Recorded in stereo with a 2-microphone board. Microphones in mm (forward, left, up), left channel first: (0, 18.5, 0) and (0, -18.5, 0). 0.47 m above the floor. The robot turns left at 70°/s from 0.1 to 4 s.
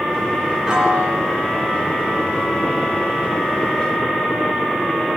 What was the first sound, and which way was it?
A piano, 20° right.